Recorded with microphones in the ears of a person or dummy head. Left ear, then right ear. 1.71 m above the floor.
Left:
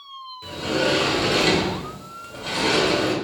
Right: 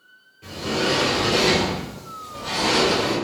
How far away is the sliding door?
About 0.7 m.